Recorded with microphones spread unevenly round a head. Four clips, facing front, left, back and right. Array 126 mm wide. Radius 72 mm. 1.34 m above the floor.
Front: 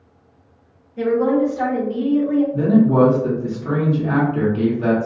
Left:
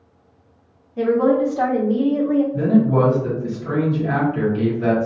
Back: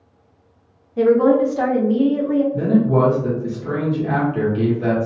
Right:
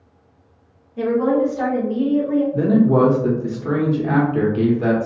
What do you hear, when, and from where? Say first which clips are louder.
1.0 s a woman speaking: left 1 dB, back 3 dB; 160° left, 1.0 m; by 2.4 s 115° left, 1.0 m
2.5 s a man speaking: right 1 dB, front 2 dB; 90° right, 1.2 m